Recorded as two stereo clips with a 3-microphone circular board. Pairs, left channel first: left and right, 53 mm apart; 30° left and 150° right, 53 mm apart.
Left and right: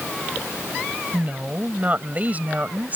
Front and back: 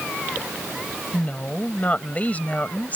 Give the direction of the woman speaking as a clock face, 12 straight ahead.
1 o'clock.